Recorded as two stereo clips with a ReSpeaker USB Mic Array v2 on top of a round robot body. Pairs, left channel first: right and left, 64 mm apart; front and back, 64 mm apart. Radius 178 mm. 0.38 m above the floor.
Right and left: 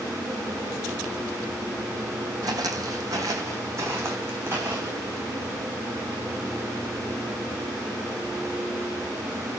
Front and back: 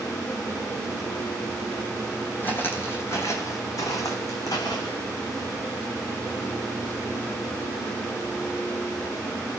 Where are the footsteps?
65° left, 1.3 m; by 5.0 s 30° left, 2 m.